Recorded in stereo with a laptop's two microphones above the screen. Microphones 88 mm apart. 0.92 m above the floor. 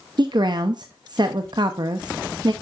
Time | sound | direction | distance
0.2 | a woman speaking | 55° right (ahead or behind) | 0.7 m